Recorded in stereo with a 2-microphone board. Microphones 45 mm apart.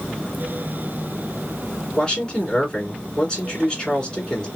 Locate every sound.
2.0 s a man speaking: 15° left (ahead or behind), 2 m